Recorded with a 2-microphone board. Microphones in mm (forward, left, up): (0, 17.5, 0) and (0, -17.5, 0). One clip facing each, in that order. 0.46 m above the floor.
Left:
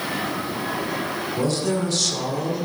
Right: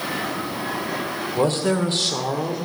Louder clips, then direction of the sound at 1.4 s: Right 3 dB; 45° right (ahead or behind).